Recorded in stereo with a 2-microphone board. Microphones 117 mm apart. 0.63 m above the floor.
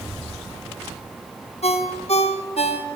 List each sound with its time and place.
1.6 s a ringtone: 60° left (ahead or behind), 0.8 m